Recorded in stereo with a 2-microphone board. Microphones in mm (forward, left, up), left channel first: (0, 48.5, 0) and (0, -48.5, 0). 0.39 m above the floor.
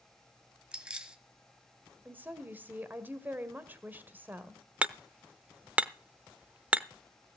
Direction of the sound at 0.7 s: 10° right (ahead or behind).